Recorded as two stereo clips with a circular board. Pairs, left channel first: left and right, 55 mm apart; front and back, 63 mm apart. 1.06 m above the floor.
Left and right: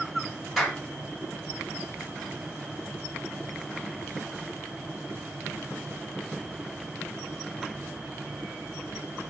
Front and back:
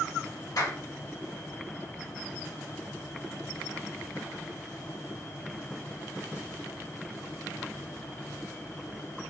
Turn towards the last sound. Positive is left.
turn(degrees=-10)